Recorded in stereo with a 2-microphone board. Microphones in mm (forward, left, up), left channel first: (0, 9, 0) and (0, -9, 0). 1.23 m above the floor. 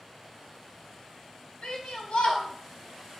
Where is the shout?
70° left (ahead or behind), 3.5 m; by 3.2 s 65° left (ahead or behind), 2 m.